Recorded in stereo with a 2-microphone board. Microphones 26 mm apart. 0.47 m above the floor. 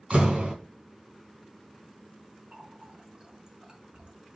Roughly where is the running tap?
Right.